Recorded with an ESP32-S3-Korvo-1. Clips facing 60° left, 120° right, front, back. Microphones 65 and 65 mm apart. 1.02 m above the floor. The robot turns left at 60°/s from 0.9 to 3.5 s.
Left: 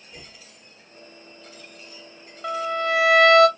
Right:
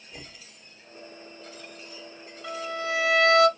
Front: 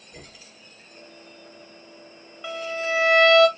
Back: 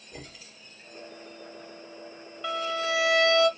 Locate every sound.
0.1 s knocking: 160° left, 2.5 m
2.4 s a violin: 80° left, 1.5 m; by 3.5 s 20° left, 1.5 m